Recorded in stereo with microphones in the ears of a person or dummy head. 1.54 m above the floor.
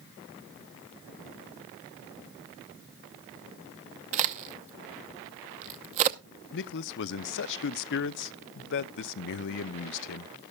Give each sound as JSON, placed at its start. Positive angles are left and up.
{"t": 4.1, "sound": "a crack", "side_deg": -35, "distance_m": 0.8}
{"t": 6.5, "sound": "a man speaking", "side_deg": 55, "distance_m": 0.5}